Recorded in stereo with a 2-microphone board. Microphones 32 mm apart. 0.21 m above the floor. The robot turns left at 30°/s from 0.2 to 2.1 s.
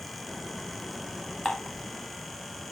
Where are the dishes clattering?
35° left (ahead or behind), 0.9 m.